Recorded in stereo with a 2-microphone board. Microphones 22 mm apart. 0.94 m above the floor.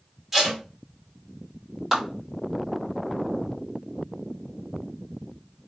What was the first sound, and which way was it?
Tape being pulled, 15° right (ahead or behind).